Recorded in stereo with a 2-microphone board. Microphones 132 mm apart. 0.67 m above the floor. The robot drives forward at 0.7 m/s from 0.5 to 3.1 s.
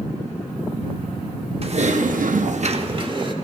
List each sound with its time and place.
1.6 s typing on a keyboard: 50° right (ahead or behind), 0.6 m; by 3.3 s 35° right (ahead or behind), 0.8 m